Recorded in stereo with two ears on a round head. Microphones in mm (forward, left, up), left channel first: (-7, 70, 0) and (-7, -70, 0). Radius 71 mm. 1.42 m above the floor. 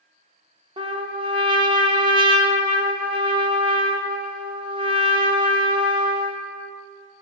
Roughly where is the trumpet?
Right.